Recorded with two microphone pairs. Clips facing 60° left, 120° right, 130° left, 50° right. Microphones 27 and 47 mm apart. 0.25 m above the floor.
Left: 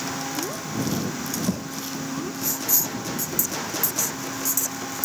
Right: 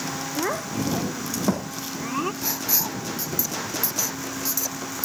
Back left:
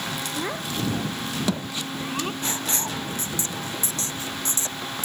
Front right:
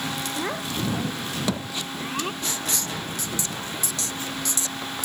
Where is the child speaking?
135° right.